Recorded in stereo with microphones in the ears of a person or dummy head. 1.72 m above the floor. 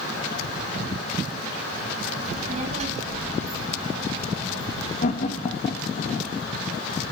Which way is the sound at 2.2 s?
50° right (ahead or behind).